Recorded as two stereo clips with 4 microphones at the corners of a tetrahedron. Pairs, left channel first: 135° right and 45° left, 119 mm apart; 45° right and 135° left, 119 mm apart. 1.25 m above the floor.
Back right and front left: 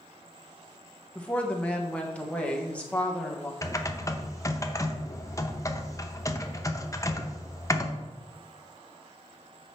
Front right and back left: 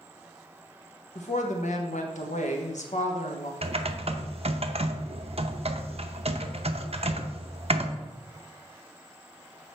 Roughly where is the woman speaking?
Ahead right.